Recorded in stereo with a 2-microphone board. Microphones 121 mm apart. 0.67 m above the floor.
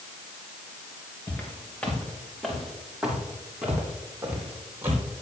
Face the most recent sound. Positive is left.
turn(degrees=-25)  # may be behind; listen again after turning